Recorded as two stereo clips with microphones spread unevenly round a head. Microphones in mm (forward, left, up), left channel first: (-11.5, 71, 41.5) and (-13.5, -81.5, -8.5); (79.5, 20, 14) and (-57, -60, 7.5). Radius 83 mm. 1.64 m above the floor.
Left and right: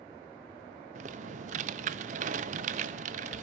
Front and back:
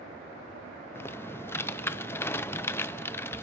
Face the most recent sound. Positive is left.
turn(degrees=-40)